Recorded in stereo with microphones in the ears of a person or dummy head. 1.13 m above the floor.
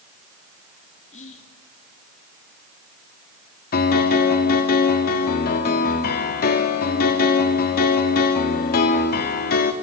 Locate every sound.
1.1 s whispering: 40° left (ahead or behind), 3 m
3.7 s a piano: 50° left (ahead or behind), 2 m